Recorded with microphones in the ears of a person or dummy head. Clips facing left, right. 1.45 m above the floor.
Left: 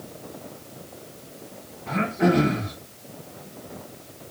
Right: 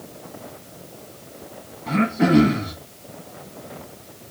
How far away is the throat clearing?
About 1.0 m.